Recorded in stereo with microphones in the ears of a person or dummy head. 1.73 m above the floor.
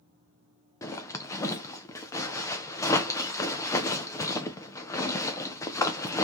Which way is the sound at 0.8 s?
15° left (ahead or behind).